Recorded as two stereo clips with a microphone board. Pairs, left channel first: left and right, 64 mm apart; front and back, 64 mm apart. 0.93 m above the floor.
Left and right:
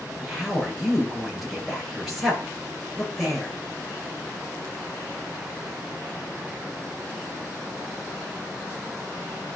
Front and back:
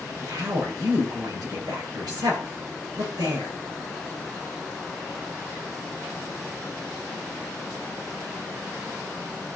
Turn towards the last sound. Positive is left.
turn(degrees=180)